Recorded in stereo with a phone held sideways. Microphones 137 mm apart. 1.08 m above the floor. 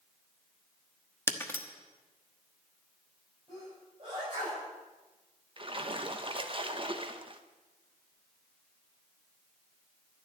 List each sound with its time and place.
1.3 s breaking glass: 15° left (ahead or behind), 1.1 m
3.5 s a sneeze: 40° right (ahead or behind), 6.5 m
5.6 s a splash: 40° right (ahead or behind), 0.9 m